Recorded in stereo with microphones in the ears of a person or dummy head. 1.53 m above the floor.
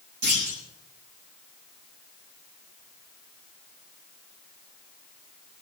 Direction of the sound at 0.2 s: 65° right (ahead or behind).